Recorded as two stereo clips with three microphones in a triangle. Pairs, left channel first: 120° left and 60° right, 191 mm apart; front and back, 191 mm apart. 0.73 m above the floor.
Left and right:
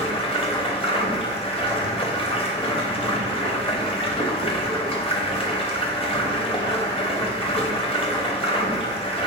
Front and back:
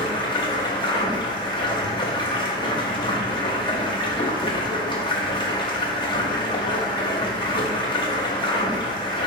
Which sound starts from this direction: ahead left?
Running water, at 0.0 s.